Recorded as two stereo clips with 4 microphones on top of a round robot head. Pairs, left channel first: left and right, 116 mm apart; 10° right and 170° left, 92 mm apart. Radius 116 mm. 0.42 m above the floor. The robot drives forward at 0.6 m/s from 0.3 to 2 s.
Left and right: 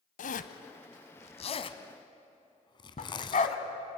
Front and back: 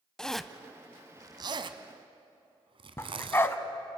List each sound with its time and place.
0.2 s a zipper: 75° left, 0.7 m; by 3.5 s 140° left, 1.1 m
3.0 s a dog barking: 55° left, 1.2 m